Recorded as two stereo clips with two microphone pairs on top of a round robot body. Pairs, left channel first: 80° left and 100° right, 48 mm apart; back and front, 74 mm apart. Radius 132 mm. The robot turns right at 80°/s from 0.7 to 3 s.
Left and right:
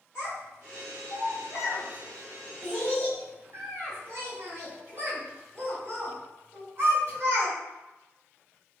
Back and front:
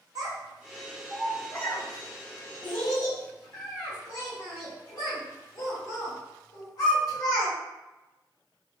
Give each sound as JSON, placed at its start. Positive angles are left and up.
{"t": 0.1, "sound": "a child speaking", "azimuth_deg": 40, "distance_m": 1.3}